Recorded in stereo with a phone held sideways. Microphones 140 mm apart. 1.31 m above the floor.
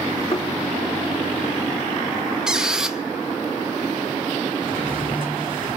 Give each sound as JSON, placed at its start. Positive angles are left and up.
{"t": 0.3, "sound": "a thud", "side_deg": 35, "distance_m": 1.3}
{"t": 2.5, "sound": "a squeak", "side_deg": -5, "distance_m": 0.7}
{"t": 4.6, "sound": "a drawer", "side_deg": 70, "distance_m": 3.0}